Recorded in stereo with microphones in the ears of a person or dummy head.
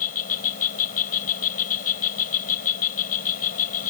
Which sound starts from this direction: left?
An insect, at 0.0 s.